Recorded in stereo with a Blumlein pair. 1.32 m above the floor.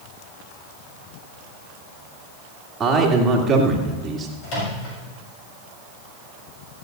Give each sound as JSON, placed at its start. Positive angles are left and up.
{"t": 2.8, "sound": "a man speaking", "azimuth_deg": -20, "distance_m": 2.5}
{"t": 4.4, "sound": "a microwave", "azimuth_deg": 40, "distance_m": 6.5}